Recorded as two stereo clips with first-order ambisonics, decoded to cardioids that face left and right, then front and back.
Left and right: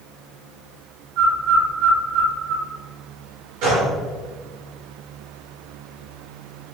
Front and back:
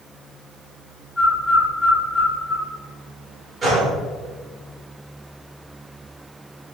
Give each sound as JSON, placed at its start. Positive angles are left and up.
{"t": 1.2, "sound": "a bird", "azimuth_deg": -75, "distance_m": 0.9}
{"t": 3.6, "sound": "a gunshot", "azimuth_deg": -105, "distance_m": 1.9}